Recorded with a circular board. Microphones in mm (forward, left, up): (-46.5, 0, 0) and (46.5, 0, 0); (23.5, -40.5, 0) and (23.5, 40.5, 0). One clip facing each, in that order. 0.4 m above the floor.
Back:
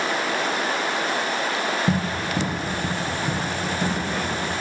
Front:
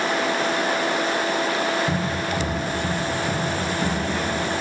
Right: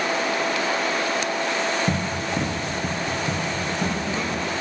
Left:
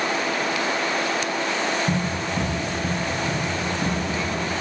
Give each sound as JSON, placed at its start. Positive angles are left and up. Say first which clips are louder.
{"t": 1.9, "sound": "running footsteps", "louder": "even, even", "azimuth_deg": -135, "distance_m": 1.3}